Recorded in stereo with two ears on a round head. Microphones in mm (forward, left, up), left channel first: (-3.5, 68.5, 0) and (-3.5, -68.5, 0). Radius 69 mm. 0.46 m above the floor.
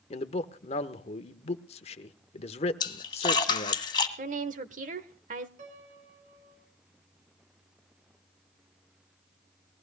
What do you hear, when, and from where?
0.1 s a man speaking: 40° left (ahead or behind), 1.0 m
2.8 s a splash: 30° left (ahead or behind), 1.8 m
4.2 s a woman speaking: 55° right (ahead or behind), 1.1 m
5.6 s a piano: 50° right (ahead or behind), 3 m